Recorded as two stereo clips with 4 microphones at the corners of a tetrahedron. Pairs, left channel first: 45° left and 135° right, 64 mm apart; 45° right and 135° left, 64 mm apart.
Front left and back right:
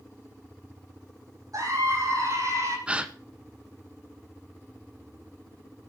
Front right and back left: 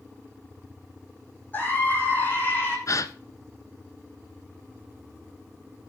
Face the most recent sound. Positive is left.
turn(degrees=-65)